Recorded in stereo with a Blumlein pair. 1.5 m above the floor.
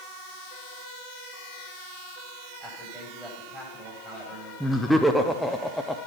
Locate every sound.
2.6 s a man speaking: 10° right, 9 m
4.6 s laughter: straight ahead, 1.3 m